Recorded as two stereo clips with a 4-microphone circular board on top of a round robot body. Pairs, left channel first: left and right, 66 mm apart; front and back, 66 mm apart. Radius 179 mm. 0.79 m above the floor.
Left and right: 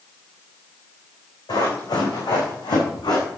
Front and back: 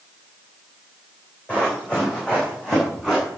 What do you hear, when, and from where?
1.5 s running footsteps: 70° left, 5 m; by 3.2 s 85° left, 4.5 m